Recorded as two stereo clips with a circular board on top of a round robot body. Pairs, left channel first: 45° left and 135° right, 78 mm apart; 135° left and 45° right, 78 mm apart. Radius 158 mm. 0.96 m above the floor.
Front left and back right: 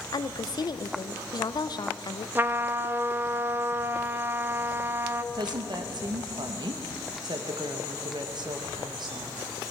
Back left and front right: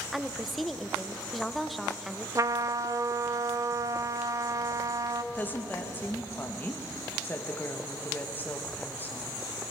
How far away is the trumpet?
About 0.8 m.